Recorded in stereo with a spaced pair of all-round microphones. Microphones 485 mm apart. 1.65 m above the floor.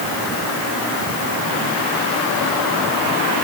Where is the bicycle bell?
I don't hear a bicycle bell.